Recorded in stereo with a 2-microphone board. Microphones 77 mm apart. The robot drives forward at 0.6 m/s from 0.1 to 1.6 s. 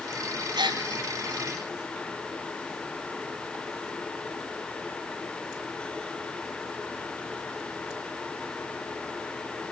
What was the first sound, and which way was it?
A gasp, 70° right (ahead or behind).